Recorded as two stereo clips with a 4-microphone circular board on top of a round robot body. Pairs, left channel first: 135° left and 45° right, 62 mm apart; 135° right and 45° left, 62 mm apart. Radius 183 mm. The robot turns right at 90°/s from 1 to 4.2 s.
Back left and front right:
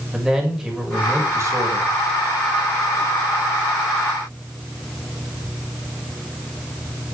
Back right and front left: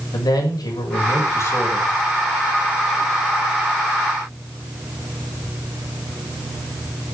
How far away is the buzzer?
I don't hear a buzzer.